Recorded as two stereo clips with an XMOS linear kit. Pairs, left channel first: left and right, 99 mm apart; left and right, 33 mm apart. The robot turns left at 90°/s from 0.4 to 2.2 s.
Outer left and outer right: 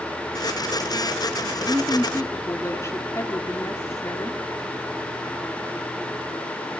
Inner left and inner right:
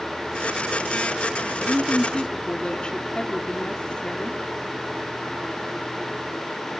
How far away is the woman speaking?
About 3.5 m.